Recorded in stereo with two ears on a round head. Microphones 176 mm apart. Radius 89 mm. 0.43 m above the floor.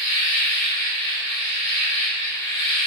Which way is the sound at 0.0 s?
15° left (ahead or behind).